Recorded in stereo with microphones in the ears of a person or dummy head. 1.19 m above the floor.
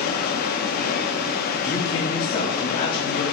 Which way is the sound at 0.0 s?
55° left (ahead or behind).